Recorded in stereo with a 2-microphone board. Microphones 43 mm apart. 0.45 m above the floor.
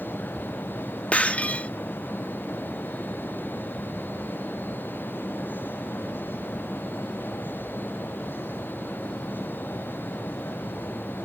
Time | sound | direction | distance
1.1 | breaking glass | 35° left (ahead or behind) | ?